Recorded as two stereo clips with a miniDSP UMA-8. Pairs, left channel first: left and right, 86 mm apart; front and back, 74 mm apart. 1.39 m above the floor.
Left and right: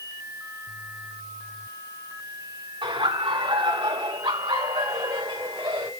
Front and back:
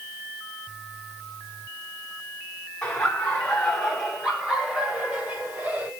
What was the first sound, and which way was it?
Laughter, 85° right.